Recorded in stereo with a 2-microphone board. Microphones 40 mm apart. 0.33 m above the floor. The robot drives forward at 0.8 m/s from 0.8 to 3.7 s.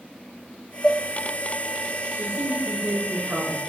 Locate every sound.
0.8 s dishes clattering: 10° left (ahead or behind), 1.2 m
2.1 s a man speaking: 70° right (ahead or behind), 5 m; by 3.6 s 60° right (ahead or behind), 5 m